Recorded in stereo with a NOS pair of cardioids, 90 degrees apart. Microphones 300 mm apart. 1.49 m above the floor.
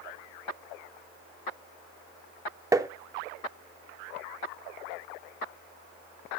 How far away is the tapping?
About 0.5 m.